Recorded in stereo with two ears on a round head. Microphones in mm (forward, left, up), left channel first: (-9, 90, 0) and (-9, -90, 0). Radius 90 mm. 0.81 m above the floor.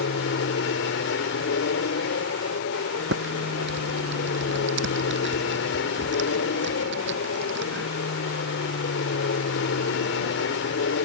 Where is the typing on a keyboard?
65° right (ahead or behind).